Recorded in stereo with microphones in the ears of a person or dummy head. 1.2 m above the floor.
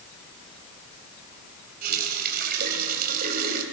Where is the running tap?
50° right (ahead or behind), 4 m.